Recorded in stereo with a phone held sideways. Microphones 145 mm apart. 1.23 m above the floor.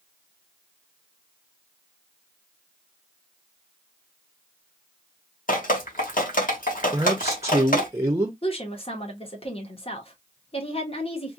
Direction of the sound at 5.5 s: 70° left (ahead or behind).